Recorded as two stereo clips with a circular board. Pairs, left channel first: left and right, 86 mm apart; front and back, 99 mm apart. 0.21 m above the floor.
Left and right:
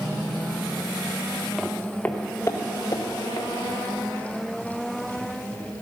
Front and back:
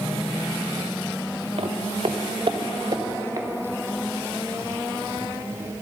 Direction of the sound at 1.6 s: Straight behind.